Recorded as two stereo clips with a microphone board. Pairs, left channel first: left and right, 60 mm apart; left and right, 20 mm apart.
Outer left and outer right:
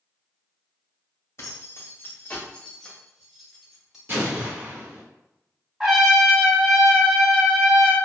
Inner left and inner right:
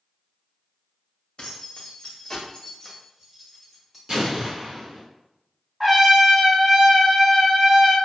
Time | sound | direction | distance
1.4 | keys jangling | 50° left (ahead or behind) | 0.9 m
4.1 | an explosion | 35° right (ahead or behind) | 1.7 m
5.8 | a trumpet | 10° right (ahead or behind) | 0.9 m